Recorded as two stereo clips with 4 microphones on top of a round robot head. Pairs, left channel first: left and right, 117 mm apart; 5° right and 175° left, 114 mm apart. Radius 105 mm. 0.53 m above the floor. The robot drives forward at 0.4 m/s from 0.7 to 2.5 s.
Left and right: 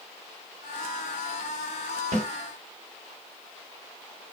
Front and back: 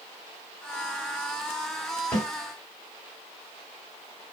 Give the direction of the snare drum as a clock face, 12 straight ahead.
3 o'clock.